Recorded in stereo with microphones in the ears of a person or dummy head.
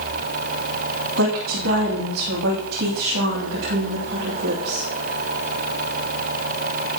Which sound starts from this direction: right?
A woman speaking, at 1.2 s.